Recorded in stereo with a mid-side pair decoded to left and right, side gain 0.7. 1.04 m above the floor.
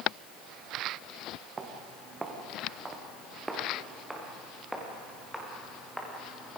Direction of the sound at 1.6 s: 25° right.